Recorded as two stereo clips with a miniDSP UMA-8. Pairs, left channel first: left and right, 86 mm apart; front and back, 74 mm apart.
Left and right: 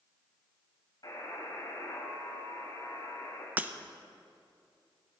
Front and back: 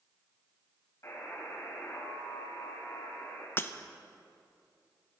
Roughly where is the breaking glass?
Ahead right.